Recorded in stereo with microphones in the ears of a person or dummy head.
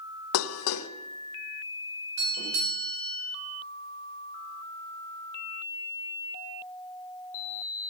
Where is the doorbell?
80° right, 6 m.